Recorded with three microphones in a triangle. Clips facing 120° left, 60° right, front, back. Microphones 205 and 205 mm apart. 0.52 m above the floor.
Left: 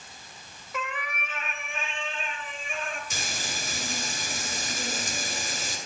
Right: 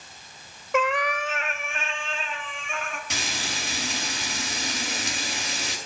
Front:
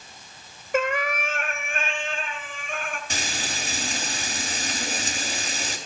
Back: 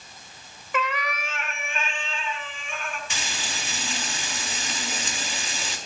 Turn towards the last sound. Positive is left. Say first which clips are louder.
# right 3 dB, front 3 dB
turn(degrees=-50)